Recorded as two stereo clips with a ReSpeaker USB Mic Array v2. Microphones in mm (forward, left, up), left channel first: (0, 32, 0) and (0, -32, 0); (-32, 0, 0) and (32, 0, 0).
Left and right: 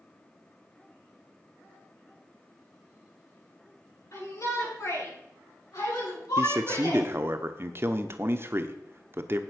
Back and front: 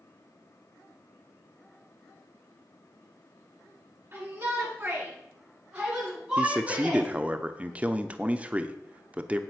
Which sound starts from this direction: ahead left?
A shout, at 4.1 s.